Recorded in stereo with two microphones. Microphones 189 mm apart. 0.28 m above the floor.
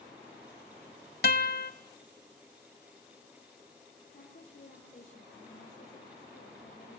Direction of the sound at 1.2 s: 55° left (ahead or behind).